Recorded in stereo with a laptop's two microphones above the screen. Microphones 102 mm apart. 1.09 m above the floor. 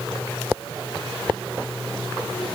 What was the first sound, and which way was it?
Only background noise.